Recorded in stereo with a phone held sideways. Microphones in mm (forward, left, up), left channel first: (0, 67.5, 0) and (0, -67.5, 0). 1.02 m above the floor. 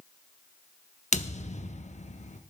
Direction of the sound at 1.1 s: 65° left (ahead or behind).